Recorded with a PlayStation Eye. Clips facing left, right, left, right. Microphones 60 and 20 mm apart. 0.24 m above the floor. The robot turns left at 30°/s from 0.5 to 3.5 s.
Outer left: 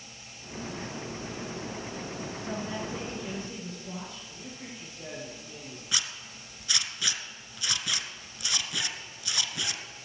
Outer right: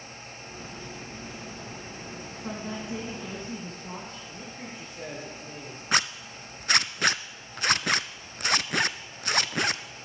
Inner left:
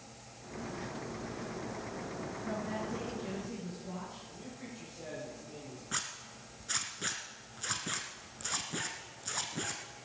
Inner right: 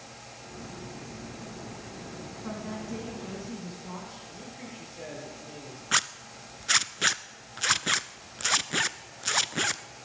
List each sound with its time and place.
2.4 s a woman speaking: 95° right, 9.5 m; by 4.2 s 130° right, 9.5 m
4.3 s a man speaking: 60° right (ahead or behind), 6.5 m
5.9 s a zipper: 50° right (ahead or behind), 0.5 m